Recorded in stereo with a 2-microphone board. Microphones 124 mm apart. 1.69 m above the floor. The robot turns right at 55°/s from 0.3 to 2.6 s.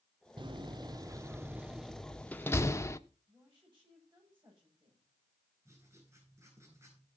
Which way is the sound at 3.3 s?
45° right (ahead or behind).